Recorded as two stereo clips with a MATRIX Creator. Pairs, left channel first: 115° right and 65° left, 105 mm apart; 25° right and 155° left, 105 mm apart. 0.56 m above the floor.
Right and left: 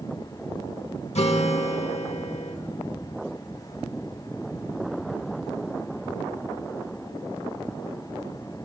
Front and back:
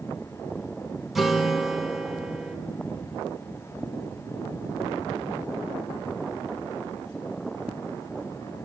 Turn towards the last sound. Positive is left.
turn(degrees=-115)